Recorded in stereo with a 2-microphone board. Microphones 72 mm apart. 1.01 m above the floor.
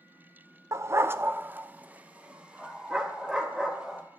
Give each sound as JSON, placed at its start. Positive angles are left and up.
{"t": 0.7, "sound": "a dog barking", "side_deg": -45, "distance_m": 0.5}